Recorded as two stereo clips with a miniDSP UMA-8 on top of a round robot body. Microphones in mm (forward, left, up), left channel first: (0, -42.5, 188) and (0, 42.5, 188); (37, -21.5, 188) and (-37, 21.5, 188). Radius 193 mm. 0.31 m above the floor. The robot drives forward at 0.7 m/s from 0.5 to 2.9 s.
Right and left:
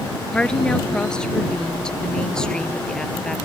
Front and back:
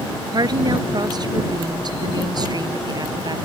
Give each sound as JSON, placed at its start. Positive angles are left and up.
{"t": 0.3, "sound": "a woman speaking", "azimuth_deg": -170}